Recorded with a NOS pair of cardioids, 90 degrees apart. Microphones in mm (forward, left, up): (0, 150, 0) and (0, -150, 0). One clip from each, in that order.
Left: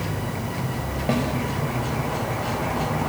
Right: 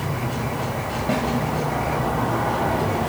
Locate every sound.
1.1 s a snare drum: 15° left, 8 m